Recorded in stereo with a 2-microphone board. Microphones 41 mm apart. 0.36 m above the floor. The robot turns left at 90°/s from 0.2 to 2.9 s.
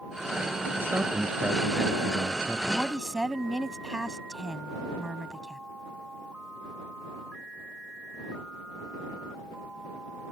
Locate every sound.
0.8 s a man speaking: 100° right; by 2.6 s 100° left
2.7 s a woman speaking: 5° left (ahead or behind); by 5.6 s 15° right (ahead or behind)